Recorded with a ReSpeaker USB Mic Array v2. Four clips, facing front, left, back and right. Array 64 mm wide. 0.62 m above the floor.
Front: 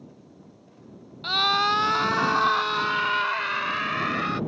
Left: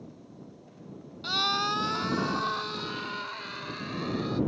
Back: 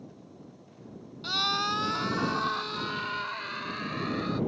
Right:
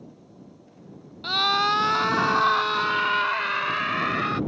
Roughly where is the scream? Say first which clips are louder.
Right 6 dB, front 7 dB; ahead right.